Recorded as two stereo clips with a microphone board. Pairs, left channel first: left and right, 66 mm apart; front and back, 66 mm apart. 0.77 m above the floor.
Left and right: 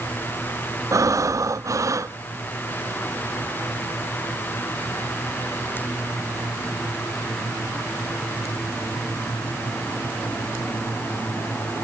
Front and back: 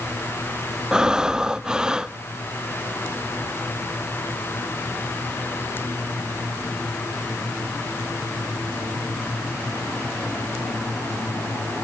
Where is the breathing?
105° right, 0.5 m.